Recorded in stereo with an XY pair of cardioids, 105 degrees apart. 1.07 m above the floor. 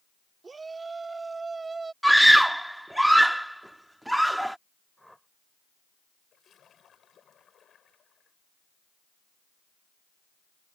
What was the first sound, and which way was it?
A shout, 30° right.